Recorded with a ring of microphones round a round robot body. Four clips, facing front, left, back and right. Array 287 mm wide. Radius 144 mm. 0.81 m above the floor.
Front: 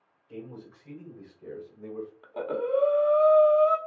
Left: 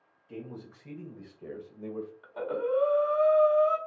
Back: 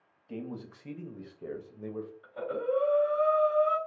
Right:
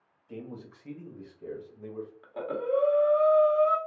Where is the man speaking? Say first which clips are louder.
Even, back 2 dB; 170° right, 1.5 m; by 2.1 s 130° left, 1.0 m.